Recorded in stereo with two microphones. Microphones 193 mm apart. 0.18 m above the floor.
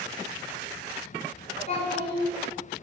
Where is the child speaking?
35° left (ahead or behind), 1.3 m.